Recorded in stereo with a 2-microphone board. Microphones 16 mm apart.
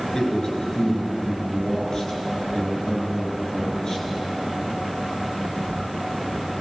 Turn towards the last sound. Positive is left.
turn(degrees=45)  # may be behind; listen again after turning